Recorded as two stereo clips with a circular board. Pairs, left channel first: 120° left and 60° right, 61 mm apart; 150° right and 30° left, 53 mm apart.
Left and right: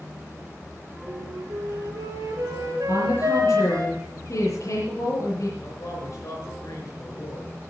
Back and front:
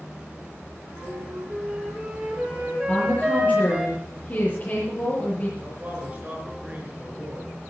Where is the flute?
45° right, 2.5 m.